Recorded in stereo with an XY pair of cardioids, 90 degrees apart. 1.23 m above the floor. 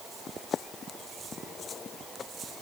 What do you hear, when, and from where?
Only background noise.